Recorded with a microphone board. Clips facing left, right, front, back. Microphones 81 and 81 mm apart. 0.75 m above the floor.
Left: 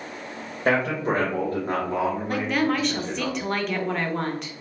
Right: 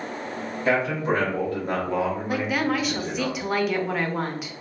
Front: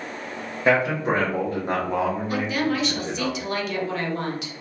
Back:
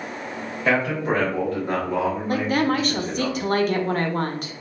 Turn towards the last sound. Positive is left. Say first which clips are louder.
# left 1 dB, back 3 dB
turn(degrees=-170)